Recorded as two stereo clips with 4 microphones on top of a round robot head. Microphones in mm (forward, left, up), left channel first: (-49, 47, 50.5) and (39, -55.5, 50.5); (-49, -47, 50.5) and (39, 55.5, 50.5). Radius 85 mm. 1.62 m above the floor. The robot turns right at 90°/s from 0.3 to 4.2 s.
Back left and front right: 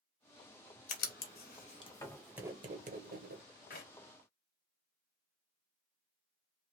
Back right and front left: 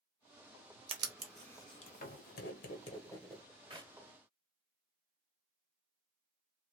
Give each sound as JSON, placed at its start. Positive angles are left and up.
{"t": 0.9, "sound": "writing", "azimuth_deg": 100, "distance_m": 1.4}
{"t": 3.7, "sound": "a clap", "azimuth_deg": 105, "distance_m": 1.8}